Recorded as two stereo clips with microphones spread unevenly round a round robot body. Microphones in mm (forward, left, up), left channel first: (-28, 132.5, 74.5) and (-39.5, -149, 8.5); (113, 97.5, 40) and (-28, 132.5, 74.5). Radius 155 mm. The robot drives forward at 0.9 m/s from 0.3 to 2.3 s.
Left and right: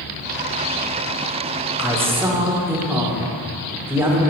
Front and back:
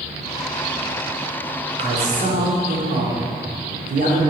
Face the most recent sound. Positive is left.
turn(degrees=-160)